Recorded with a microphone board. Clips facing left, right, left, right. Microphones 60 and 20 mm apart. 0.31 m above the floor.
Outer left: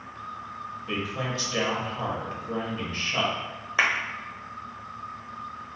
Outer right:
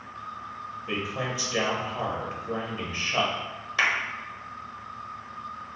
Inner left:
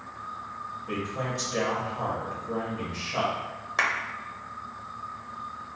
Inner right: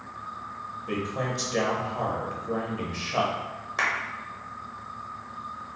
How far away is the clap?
About 0.7 m.